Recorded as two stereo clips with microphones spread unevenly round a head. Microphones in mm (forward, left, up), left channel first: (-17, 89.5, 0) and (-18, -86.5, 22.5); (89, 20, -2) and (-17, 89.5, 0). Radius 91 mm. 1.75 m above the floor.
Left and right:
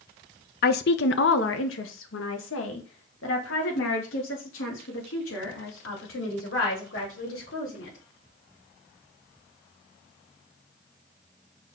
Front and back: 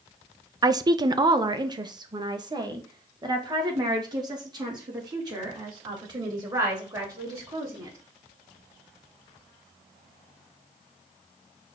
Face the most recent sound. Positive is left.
turn(degrees=90)